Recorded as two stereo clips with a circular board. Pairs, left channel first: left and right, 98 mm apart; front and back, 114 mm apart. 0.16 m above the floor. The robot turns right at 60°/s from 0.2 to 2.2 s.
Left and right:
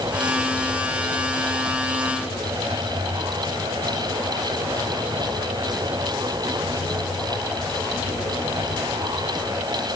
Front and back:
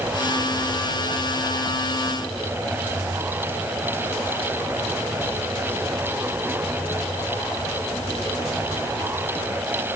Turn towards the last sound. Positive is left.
No sound to turn to.